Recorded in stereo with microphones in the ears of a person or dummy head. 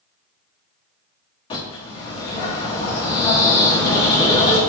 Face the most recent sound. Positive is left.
turn(degrees=25)  # may be behind; listen again after turning